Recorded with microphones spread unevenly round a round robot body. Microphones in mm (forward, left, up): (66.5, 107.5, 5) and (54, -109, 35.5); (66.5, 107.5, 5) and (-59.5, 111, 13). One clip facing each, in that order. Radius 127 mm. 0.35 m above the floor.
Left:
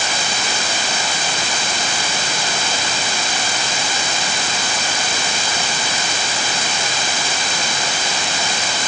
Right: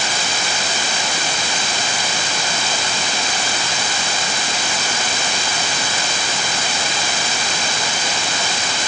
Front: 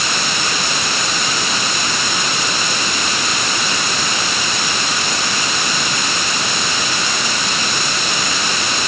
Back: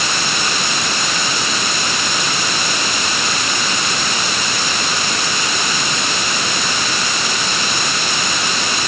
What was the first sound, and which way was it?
Only background noise.